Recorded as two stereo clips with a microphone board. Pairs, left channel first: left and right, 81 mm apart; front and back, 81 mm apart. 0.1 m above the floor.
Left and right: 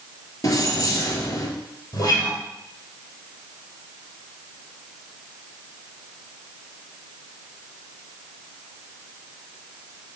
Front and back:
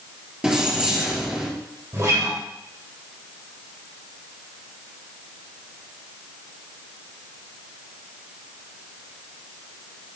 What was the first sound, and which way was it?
Keys jangling, 100° left.